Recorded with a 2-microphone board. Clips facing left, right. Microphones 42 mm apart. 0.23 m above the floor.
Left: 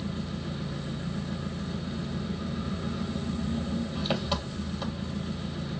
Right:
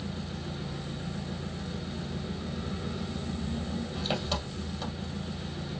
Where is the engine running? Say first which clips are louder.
Left 3 dB; 10° left (ahead or behind), 1.9 m.